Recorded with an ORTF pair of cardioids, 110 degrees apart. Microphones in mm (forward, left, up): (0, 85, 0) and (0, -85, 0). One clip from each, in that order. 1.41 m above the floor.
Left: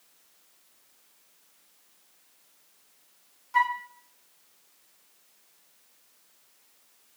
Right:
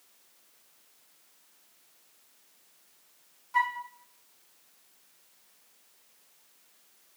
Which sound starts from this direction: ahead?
A flute, at 3.5 s.